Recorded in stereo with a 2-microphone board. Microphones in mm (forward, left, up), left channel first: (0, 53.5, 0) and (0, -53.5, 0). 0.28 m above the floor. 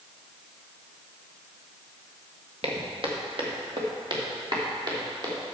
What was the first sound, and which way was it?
Footsteps, 60° right (ahead or behind).